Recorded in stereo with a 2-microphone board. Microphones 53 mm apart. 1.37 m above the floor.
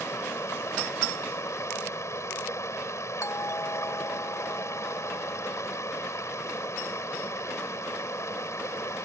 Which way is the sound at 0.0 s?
65° left (ahead or behind).